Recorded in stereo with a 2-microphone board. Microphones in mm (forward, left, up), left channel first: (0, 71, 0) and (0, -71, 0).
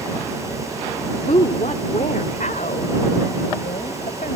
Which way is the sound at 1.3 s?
55° left (ahead or behind).